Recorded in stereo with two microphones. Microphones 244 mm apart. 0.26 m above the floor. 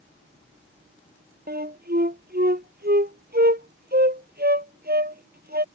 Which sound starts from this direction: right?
A flute, at 1.5 s.